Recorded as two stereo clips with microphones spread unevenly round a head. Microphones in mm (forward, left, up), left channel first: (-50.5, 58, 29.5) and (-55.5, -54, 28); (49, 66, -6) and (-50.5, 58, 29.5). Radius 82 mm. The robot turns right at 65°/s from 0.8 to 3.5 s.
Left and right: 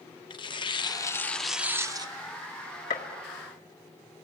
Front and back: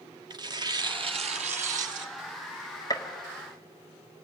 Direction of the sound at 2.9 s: 60° left.